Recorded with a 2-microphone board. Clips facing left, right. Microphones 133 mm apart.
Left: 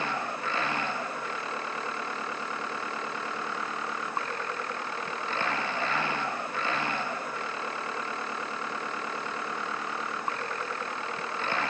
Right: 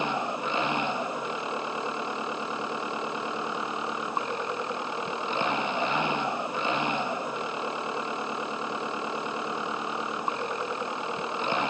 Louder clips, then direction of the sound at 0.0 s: Right 3 dB; 20° right (ahead or behind).